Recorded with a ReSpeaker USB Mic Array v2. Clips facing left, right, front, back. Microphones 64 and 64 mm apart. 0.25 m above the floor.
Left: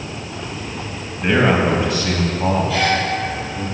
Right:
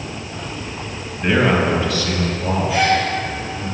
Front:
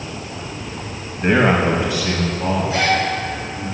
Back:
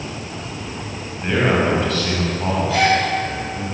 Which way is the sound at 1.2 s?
5° right.